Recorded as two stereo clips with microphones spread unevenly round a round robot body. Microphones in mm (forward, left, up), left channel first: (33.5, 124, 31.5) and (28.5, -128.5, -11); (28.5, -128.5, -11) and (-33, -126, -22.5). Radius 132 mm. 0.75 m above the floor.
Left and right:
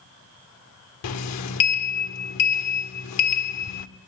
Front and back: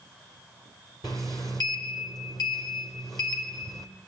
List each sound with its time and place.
1.0 s a sliding door: 65° left, 1.4 m